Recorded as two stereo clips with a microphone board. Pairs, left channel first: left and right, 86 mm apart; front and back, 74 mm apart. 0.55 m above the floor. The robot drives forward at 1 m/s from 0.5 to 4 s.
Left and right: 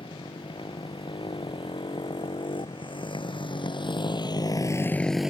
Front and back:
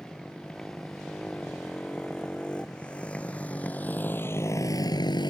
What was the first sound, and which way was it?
A motorcycle, 80° left.